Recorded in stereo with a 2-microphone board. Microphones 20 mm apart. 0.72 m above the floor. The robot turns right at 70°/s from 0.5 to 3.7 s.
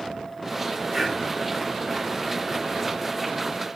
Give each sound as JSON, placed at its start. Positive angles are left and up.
{"t": 0.9, "sound": "breathing", "side_deg": -5, "distance_m": 1.6}